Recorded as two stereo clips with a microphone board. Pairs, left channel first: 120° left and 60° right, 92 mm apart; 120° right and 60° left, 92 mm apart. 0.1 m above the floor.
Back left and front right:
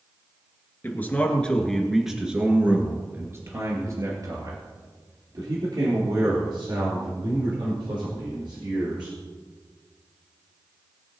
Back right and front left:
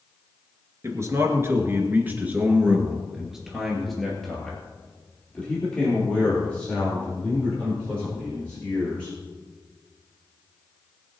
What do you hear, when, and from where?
0.8 s a man speaking: 75° left, 2 m; by 9.2 s 50° right, 6.5 m